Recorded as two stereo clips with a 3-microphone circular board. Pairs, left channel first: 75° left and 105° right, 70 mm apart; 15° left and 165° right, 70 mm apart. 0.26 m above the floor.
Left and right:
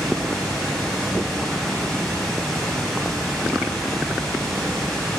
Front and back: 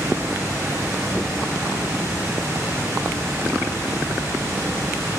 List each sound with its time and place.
0.0 s running water: 155° left, 0.9 m